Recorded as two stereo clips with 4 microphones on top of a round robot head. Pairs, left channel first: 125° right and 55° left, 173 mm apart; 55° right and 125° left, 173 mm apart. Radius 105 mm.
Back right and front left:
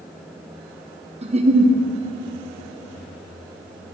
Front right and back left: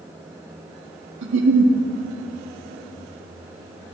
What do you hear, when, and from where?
1.2 s a giggle: 110° left, 1.0 m